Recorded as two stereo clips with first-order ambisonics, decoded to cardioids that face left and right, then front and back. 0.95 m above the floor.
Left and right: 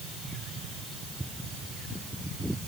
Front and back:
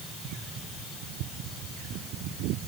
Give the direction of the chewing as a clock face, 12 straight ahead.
No chewing in this recording.